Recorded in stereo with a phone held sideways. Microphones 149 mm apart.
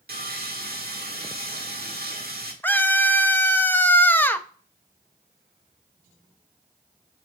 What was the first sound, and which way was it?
Sawing, 75° right (ahead or behind).